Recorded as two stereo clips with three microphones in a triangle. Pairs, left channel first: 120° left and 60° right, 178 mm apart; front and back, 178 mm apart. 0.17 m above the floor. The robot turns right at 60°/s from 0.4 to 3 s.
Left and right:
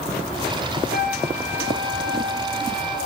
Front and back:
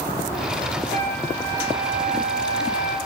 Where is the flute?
140° left, 0.8 m; by 3.0 s 100° right, 0.8 m.